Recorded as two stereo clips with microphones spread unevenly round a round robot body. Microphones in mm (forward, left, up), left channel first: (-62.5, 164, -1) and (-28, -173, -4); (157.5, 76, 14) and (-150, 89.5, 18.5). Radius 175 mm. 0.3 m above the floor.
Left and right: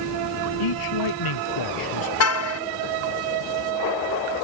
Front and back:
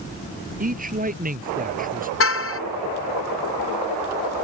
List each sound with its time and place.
0.6 s a man speaking: 115° left
2.2 s a car horn: 45° left